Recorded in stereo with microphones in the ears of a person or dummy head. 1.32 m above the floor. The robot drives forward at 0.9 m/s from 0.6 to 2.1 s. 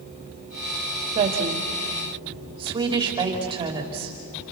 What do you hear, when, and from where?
1.1 s a woman speaking: 35° right (ahead or behind), 2.5 m; by 4.2 s 25° right (ahead or behind), 3 m